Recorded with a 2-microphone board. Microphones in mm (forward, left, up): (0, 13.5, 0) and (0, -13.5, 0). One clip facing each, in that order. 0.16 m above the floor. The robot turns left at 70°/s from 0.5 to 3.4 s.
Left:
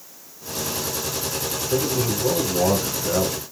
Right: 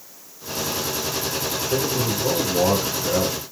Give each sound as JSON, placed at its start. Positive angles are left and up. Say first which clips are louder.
{"t": 1.7, "sound": "a man speaking", "louder": "left 1 dB", "side_deg": -15, "distance_m": 1.6}